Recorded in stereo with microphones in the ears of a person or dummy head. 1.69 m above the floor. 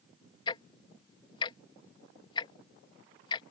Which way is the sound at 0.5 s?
25° left (ahead or behind).